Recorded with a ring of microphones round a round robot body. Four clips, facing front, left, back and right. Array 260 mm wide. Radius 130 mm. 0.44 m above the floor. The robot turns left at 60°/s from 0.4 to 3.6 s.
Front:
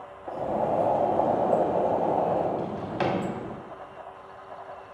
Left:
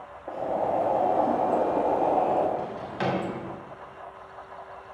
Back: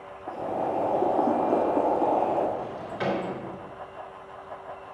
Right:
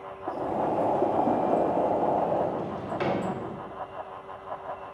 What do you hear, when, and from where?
0.3 s boiling: 110° right, 0.8 m; by 2.5 s 125° left, 0.8 m
2.6 s a drawer: 30° left, 1.8 m; by 3.2 s 5° right, 1.8 m